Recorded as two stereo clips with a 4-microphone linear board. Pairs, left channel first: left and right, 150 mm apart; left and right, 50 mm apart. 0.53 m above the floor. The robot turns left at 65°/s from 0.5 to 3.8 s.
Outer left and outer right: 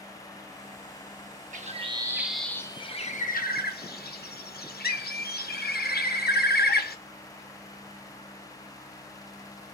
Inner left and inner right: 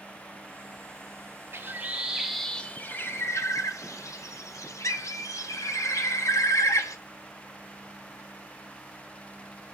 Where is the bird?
125° right, 0.5 m; by 7.0 s 85° left, 0.5 m.